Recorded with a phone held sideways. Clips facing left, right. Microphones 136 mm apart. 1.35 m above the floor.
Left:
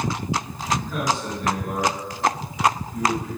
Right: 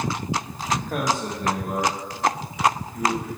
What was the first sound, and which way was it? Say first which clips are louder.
A man speaking: even; 60° right (ahead or behind).